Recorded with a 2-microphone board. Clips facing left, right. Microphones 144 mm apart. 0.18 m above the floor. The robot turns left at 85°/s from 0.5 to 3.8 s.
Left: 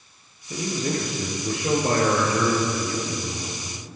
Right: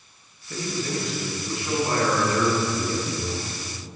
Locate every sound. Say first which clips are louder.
0.5 s a man speaking: left 2 dB; 170° left, 4 m; by 3.9 s 110° right, 4 m